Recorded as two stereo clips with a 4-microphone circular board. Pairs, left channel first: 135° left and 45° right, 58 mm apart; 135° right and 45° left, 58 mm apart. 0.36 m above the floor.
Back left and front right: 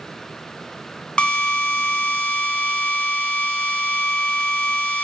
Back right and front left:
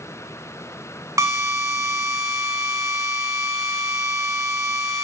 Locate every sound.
1.2 s a drill: 65° left, 1.1 m